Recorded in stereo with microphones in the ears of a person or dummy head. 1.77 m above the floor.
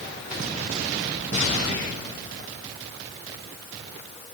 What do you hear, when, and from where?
Only background noise.